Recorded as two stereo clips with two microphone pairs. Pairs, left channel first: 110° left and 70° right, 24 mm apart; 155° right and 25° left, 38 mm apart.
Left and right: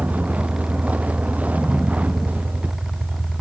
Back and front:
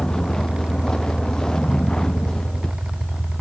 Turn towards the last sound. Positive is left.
turn(degrees=-85)